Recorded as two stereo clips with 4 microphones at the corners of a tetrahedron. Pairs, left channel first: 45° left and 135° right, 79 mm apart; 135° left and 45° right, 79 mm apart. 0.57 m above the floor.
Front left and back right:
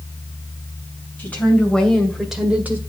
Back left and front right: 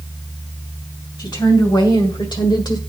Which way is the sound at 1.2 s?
115° left.